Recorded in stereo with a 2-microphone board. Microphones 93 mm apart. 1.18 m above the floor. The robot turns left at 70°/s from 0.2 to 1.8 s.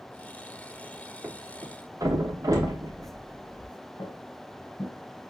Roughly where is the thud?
Centre.